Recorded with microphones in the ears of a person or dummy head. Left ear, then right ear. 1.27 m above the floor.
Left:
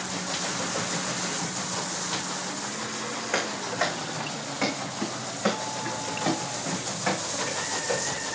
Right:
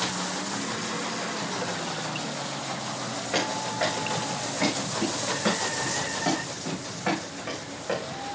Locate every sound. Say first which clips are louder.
3.3 s running footsteps: right 1 dB; 40° left (ahead or behind), 4 m; by 8.0 s 5° left (ahead or behind), 3.5 m